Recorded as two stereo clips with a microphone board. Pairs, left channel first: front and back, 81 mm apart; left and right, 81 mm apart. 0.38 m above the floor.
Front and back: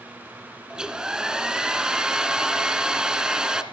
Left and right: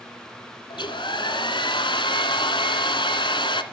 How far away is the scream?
I don't hear a scream.